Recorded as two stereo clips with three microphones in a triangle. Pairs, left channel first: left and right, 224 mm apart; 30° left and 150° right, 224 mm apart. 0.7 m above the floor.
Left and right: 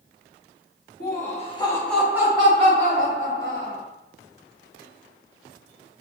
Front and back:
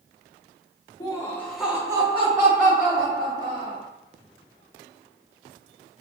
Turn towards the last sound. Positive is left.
turn(degrees=-120)